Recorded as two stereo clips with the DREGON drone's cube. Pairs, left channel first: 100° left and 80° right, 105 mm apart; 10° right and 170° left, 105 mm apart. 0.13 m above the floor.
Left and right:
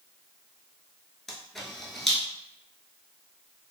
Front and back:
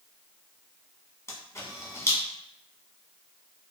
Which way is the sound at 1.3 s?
15° left.